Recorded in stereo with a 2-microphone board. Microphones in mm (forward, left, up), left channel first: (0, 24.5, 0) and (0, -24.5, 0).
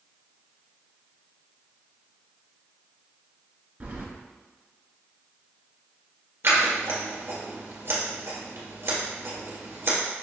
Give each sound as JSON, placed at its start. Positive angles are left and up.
{"t": 3.8, "sound": "keys jangling", "side_deg": -35, "distance_m": 1.3}
{"t": 6.4, "sound": "scissors", "side_deg": -60, "distance_m": 1.6}